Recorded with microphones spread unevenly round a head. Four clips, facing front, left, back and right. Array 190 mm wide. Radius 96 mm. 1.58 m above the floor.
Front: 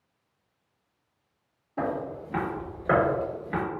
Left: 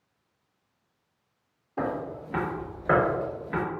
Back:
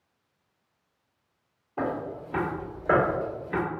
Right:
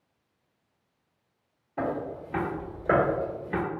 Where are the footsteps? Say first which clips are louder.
Even, even; 80° left, 1.9 m; by 3.6 s 55° right, 1.6 m.